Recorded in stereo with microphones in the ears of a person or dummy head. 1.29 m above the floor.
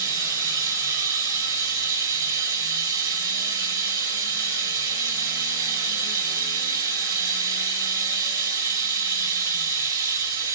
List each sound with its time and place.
0.0 s running water: 20° right (ahead or behind), 1.1 m